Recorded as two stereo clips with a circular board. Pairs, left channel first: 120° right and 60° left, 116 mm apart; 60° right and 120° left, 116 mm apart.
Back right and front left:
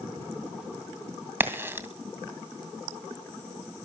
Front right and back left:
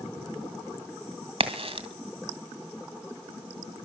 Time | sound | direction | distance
1.4 | a crack | 130° left | 2.5 m